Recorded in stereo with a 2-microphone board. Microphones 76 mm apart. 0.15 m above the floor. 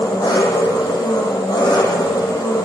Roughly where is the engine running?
Left.